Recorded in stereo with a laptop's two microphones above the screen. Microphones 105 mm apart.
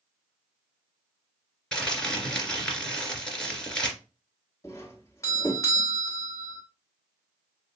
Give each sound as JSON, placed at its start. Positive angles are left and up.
{"t": 1.7, "sound": "crumpling", "side_deg": 5, "distance_m": 2.5}
{"t": 4.6, "sound": "a doorbell", "side_deg": 30, "distance_m": 1.6}